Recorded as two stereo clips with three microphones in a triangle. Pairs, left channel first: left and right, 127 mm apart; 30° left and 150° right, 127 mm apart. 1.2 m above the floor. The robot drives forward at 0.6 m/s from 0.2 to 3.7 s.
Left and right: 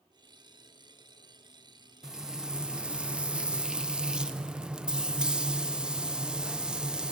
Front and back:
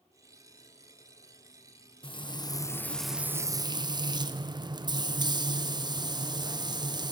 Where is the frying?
5° right, 0.8 m; by 7.1 s 170° right, 0.6 m.